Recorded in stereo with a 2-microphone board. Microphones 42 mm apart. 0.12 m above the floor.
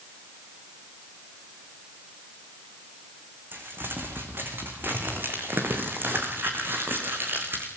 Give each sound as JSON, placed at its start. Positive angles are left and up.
{"t": 3.5, "sound": "crumpling", "side_deg": -55, "distance_m": 5.0}